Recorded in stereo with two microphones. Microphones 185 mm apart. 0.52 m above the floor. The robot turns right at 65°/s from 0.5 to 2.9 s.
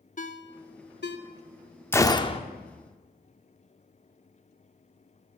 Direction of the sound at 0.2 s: 45° left (ahead or behind).